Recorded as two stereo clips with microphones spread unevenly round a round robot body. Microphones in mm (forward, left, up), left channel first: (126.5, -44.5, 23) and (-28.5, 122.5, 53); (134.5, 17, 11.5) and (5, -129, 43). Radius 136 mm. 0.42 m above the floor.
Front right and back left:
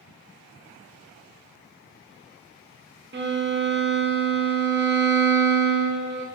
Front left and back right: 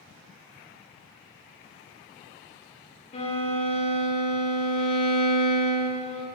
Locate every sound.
3.1 s a violin: 95° left, 0.5 m